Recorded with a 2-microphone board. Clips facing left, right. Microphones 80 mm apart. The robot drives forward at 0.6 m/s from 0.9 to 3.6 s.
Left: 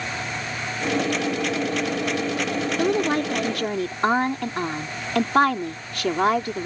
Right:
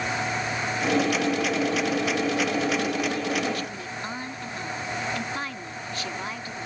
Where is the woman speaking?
65° left (ahead or behind); by 6.7 s 75° left (ahead or behind).